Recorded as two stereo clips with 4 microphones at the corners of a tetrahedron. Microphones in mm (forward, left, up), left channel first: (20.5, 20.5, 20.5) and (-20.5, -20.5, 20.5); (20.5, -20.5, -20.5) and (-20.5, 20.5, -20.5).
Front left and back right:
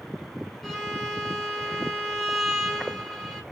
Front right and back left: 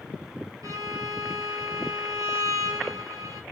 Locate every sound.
0.6 s a violin: 130° left, 3.5 m